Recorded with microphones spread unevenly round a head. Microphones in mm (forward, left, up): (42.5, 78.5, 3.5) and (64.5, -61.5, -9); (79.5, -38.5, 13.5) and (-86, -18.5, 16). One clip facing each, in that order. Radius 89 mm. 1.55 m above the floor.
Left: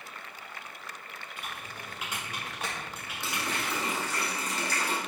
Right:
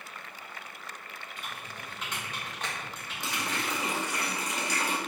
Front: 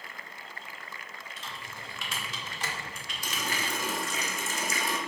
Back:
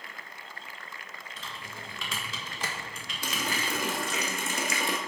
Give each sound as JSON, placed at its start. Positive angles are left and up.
{"t": 1.4, "sound": "typing on a keyboard", "azimuth_deg": 180, "distance_m": 1.7}
{"t": 3.2, "sound": "a running tap", "azimuth_deg": -160, "distance_m": 1.5}